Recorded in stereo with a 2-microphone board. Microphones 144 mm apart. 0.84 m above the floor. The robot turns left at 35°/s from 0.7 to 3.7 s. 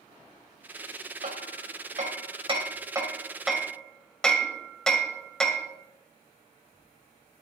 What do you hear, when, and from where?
1.2 s hammering: 80° right, 1.9 m; by 5.7 s 5° left (ahead or behind), 1.9 m